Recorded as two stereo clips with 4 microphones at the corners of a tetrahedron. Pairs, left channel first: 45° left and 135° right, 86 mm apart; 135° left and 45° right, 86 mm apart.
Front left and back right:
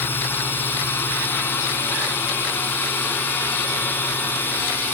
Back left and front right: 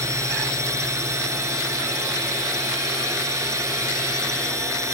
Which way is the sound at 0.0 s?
10° right.